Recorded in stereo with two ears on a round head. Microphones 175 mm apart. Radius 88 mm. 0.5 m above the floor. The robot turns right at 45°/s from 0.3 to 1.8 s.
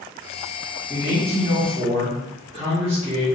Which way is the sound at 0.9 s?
105° right.